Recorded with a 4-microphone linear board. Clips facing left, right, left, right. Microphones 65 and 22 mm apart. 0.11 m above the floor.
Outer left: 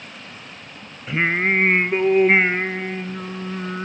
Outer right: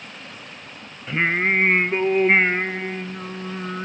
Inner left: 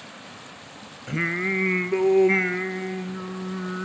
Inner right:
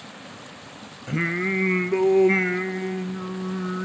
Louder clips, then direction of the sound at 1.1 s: Outer left 1 dB, even; 5° left (ahead or behind).